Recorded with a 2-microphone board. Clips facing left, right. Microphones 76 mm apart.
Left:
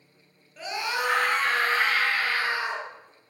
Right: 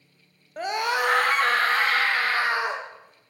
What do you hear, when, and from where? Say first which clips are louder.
0.6 s a scream: right 5 dB; 50° right (ahead or behind), 1.8 m; by 2.8 s 60° right (ahead or behind), 4.5 m